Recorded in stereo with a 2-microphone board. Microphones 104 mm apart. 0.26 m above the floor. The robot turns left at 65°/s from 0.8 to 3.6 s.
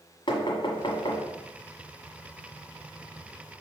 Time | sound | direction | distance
0.3 | knocking | 55° left (ahead or behind) | 1.4 m